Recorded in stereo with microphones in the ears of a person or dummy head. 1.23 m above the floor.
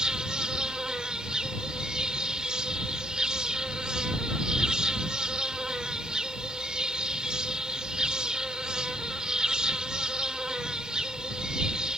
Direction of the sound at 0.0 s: 5° right (ahead or behind).